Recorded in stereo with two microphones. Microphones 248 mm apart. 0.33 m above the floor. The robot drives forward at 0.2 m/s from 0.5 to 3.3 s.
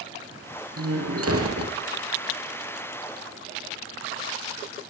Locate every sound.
0.8 s a door slam: 70° right (ahead or behind), 5 m